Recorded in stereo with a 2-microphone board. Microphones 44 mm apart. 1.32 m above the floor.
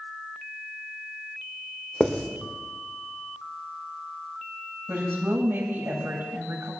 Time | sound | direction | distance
2.0 | writing | 25° left (ahead or behind) | 1.8 m
4.9 | a woman speaking | 60° right (ahead or behind) | 7 m